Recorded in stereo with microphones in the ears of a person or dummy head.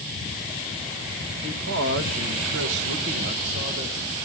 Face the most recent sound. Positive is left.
turn(degrees=-25)  # may be behind; listen again after turning